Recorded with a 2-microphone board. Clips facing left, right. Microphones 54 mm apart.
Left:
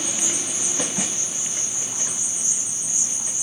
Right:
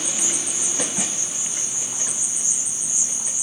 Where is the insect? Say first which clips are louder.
Even; 15° right (ahead or behind), 0.8 m.